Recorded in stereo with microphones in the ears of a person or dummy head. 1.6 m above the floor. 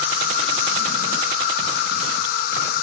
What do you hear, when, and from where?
0.0 s an insect: 50° left (ahead or behind), 2.0 m